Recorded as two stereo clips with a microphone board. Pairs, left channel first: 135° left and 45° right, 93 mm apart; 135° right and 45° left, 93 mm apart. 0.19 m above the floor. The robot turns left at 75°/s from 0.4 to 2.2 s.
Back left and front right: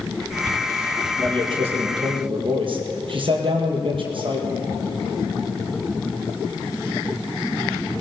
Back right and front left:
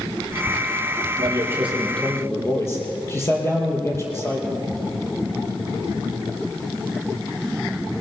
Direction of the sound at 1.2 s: 5° left.